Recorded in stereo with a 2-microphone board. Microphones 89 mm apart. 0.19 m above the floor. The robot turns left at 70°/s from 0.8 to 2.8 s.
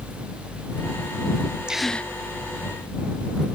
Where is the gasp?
170° right; by 2.1 s 160° left.